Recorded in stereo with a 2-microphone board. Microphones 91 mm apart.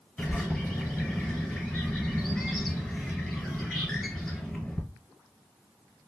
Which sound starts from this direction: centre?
A bird, at 0.2 s.